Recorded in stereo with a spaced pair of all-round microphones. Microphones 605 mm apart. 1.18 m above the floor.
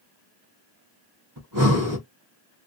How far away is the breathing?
About 0.9 m.